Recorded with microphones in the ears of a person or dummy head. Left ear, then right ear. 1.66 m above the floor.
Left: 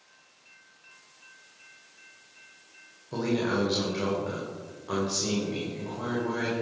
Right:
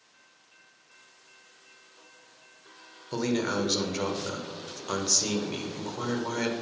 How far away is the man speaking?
About 1.4 m.